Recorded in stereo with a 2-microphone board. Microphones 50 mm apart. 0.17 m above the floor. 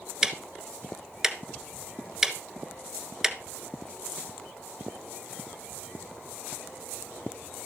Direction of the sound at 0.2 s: 10° right (ahead or behind).